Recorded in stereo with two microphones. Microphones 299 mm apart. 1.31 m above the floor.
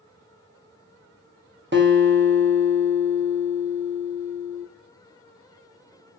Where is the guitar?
40° right (ahead or behind), 0.9 m.